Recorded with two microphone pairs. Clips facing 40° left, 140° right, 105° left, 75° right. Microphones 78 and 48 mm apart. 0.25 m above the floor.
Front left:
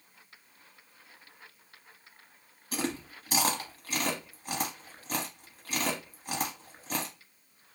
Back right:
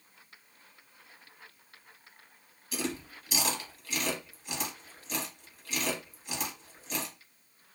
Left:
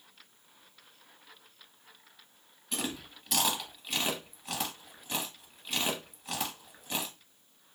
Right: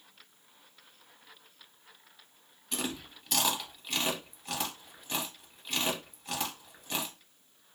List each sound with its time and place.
2.7 s chewing: 15° left, 0.7 m